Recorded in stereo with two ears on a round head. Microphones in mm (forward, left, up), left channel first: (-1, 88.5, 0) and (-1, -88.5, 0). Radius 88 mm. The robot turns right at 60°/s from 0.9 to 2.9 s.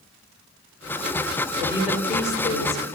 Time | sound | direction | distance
1.6 | a woman speaking | 25° right | 5 m